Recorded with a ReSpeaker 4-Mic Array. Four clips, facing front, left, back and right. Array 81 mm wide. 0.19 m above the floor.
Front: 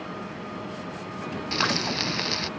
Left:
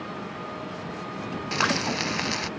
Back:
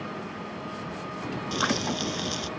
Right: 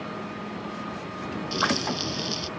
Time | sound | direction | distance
1.5 | frying | 65° left | ?